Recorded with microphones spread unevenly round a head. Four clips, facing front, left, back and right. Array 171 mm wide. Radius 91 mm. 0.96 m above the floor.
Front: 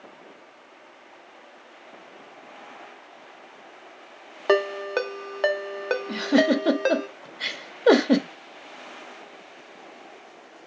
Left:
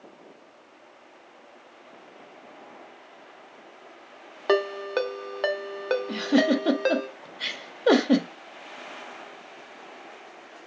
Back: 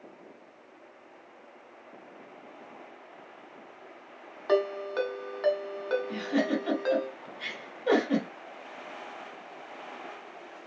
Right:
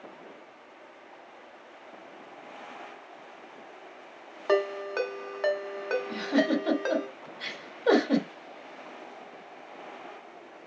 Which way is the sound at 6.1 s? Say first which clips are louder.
Left 4 dB, front 12 dB; 30° left.